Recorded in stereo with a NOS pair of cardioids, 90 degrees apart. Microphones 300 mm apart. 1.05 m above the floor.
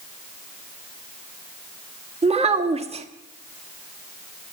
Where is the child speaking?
20° right, 1.5 m.